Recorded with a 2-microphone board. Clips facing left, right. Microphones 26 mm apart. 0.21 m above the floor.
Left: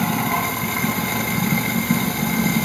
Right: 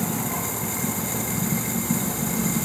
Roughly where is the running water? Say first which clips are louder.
Left 7 dB; left.